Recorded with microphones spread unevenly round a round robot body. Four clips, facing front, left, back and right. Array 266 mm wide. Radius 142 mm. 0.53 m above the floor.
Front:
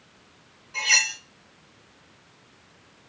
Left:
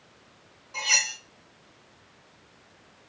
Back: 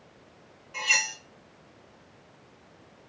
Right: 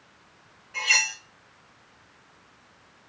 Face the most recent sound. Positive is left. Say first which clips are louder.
# right 3 dB, front 3 dB
turn(degrees=140)